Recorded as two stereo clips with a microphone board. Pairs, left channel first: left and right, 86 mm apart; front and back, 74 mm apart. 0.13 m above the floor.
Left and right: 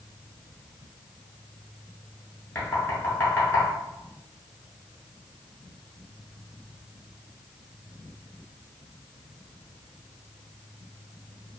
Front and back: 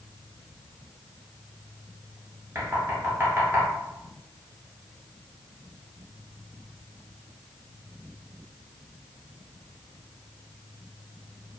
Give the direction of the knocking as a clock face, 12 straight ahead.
7 o'clock.